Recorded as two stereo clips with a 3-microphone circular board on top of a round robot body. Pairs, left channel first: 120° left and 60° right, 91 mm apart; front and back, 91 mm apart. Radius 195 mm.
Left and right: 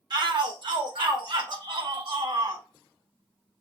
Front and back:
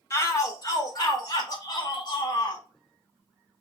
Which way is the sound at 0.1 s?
50° right.